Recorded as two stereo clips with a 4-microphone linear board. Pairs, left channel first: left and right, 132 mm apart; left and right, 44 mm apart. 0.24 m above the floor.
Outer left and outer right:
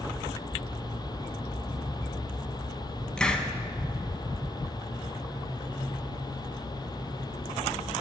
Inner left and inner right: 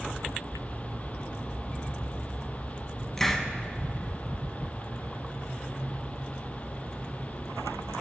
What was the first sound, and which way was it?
A hiss, 5° left (ahead or behind).